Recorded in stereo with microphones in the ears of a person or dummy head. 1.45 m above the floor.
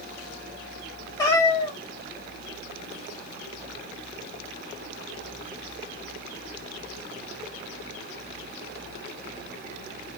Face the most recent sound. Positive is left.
turn(degrees=20)  # may be behind; listen again after turning